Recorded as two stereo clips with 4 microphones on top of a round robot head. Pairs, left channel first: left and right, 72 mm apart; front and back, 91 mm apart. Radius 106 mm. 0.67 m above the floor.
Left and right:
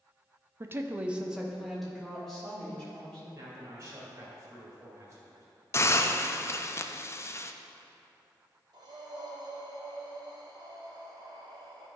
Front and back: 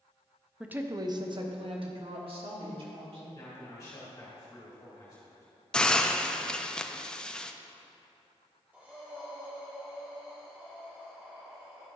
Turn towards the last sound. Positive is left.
turn(degrees=-110)